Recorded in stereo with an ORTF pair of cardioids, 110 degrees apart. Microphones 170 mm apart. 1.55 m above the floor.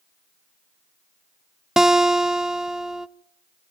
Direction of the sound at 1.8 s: 5° right.